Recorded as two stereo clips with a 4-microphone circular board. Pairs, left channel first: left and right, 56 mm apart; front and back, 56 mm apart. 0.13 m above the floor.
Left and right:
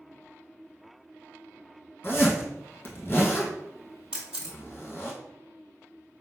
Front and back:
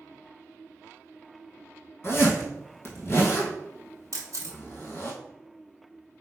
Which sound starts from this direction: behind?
A camera shutter, at 4.1 s.